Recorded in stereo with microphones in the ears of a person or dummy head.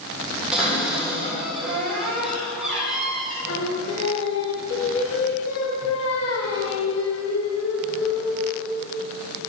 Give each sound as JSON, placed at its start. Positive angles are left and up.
{"t": 0.5, "sound": "a cupboard door", "side_deg": 0, "distance_m": 4.0}
{"t": 3.5, "sound": "singing", "side_deg": 65, "distance_m": 1.5}